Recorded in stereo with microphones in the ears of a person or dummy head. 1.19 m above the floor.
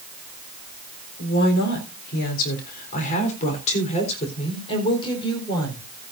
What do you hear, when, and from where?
1.2 s a woman speaking: 60° left (ahead or behind), 4 m; by 5.8 s 20° left (ahead or behind), 4 m